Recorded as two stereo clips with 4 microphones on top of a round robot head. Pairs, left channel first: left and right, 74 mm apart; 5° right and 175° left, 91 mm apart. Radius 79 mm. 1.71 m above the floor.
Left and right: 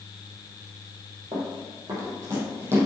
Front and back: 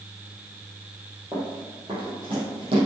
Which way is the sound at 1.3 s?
120° right.